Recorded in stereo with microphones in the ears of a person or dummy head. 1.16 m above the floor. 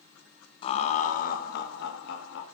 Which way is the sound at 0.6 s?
30° left (ahead or behind).